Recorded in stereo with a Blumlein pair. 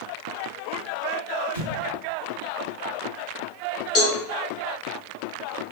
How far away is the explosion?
About 0.8 m.